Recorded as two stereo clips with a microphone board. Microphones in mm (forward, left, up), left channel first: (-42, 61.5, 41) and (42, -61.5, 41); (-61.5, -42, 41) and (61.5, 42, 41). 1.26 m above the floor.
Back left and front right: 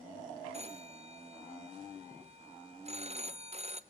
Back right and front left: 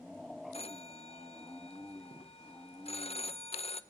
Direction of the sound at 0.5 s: 100° right.